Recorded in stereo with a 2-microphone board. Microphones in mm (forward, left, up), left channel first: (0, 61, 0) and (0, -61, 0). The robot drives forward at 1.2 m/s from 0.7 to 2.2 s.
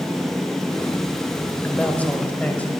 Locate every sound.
1.6 s a woman speaking: 15° left (ahead or behind), 1.5 m; by 2.7 s 10° left (ahead or behind), 1.9 m